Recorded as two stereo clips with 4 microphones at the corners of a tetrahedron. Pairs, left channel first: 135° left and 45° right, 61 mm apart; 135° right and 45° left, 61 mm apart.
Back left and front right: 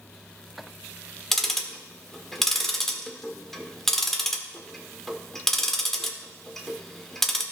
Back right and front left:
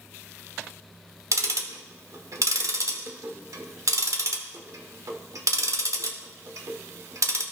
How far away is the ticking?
About 0.9 m.